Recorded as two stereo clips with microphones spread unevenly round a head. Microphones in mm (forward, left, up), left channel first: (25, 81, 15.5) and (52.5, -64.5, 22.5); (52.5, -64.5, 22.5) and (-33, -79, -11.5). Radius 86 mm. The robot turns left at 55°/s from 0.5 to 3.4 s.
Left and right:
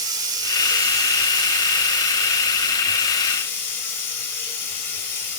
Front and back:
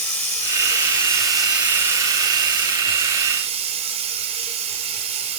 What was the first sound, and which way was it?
Running water, 20° right.